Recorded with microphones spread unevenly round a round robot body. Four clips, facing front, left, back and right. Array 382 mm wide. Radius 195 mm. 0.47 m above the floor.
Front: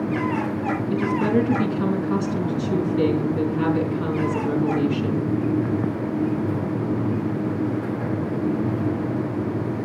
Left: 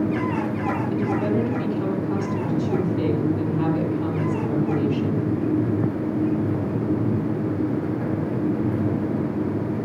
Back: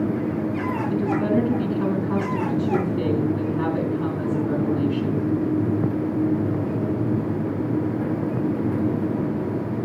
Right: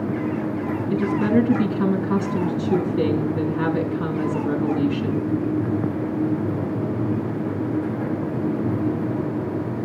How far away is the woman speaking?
About 5 m.